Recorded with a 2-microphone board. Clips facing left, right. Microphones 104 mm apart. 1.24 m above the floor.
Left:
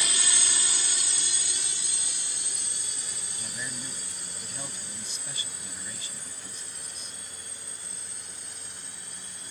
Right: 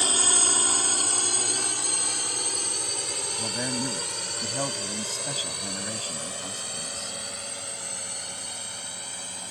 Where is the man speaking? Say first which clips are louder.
Right 11 dB; 50° right (ahead or behind).